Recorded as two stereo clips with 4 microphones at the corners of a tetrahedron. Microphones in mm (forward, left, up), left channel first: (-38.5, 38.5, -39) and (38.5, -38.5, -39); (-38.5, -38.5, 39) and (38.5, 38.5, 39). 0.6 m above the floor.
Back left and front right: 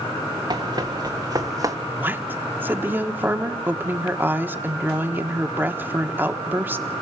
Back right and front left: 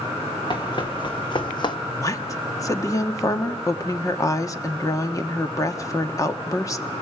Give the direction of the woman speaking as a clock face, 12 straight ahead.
3 o'clock.